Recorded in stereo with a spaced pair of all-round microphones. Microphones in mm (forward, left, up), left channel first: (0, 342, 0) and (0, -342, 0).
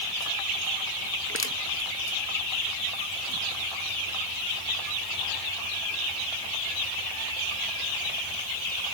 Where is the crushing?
20° left (ahead or behind).